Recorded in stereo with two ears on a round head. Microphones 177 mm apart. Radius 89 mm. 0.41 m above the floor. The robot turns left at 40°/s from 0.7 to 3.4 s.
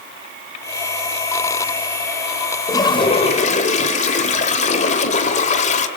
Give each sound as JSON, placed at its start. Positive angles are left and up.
{"t": 2.7, "sound": "a toilet flushing", "side_deg": 15, "distance_m": 1.9}